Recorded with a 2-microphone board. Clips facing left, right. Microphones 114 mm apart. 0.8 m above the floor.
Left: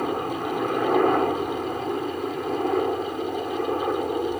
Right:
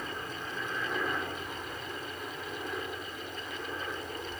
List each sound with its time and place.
0.0 s a helicopter: 60° left (ahead or behind)